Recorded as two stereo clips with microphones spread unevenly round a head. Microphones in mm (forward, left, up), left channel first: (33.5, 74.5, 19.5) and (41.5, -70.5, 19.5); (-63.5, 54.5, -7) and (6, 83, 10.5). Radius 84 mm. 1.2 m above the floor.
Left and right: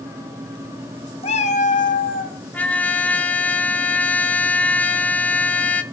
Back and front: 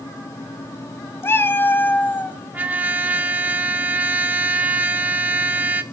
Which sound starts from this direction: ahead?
A trumpet, at 2.5 s.